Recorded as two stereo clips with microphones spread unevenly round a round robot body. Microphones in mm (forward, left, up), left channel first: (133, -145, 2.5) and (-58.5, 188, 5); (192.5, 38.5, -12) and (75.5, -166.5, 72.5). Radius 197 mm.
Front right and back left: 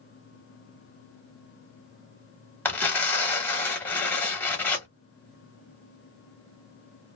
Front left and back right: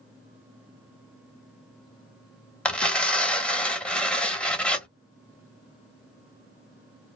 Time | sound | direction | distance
2.6 | tearing paper | 20° left | 0.8 m